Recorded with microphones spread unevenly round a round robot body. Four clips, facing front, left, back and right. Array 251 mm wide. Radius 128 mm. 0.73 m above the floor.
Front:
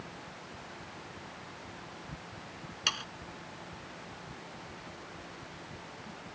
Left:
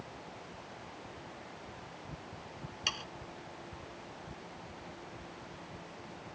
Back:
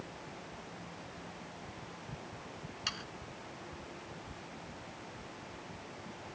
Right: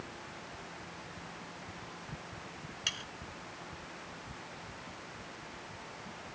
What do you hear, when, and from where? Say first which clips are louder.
2.9 s sawing: left 4 dB, front 7 dB; 25° left